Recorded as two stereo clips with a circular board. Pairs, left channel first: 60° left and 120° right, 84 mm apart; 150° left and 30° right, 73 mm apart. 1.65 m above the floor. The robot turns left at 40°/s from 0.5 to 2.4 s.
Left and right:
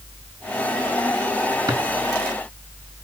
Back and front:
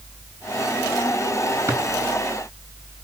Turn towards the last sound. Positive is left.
turn(degrees=-110)